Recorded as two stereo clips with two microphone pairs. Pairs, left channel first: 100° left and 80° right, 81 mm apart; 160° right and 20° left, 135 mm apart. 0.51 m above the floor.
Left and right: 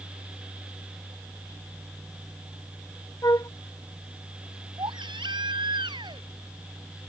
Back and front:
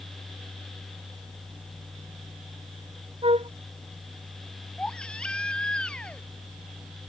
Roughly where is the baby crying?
Right.